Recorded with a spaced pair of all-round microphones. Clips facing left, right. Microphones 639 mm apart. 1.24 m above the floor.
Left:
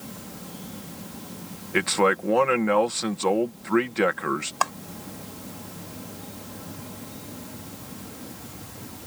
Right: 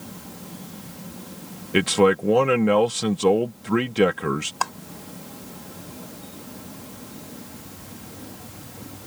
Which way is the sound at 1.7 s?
60° right (ahead or behind).